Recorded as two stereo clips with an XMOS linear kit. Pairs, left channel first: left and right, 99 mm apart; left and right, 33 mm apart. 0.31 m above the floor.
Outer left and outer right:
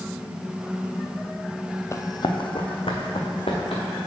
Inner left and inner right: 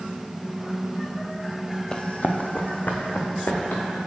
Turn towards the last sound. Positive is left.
turn(degrees=70)  # may be behind; listen again after turning